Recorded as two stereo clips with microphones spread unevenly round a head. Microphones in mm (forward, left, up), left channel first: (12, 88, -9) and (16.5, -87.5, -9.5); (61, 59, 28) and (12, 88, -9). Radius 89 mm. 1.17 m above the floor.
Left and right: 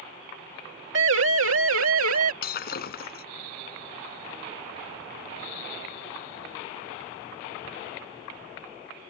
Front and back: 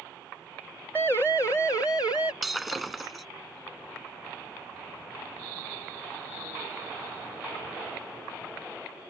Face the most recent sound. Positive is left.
turn(degrees=55)